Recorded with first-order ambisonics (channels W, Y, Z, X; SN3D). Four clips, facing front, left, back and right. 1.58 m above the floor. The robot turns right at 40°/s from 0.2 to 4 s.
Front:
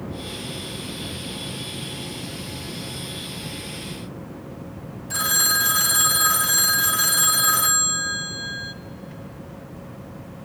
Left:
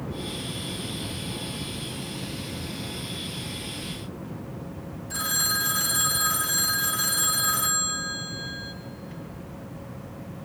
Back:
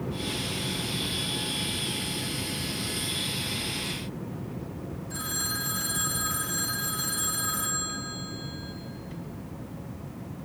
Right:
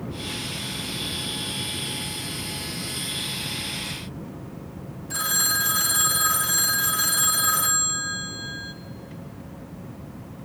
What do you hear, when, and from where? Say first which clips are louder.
5.1 s a phone ringing: right 2 dB, front 12 dB; 15° right, 1.0 m